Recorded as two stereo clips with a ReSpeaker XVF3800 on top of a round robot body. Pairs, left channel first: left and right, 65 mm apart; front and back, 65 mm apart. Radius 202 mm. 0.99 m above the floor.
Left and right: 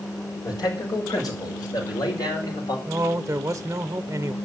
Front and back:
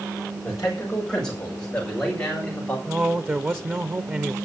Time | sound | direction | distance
0.4 | a man speaking | 85° left | 6 m
2.9 | a man speaking | 125° right | 1.1 m